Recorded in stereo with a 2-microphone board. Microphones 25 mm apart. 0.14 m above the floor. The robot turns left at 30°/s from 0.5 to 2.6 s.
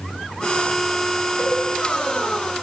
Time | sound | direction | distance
1.4 | a cowbell | 50° left (ahead or behind) | 0.7 m